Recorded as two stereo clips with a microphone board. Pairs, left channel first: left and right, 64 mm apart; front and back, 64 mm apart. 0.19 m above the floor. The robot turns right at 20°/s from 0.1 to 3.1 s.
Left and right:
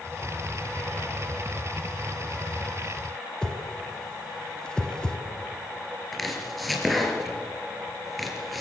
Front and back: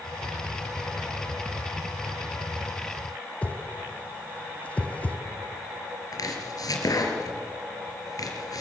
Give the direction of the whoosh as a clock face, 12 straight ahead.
11 o'clock.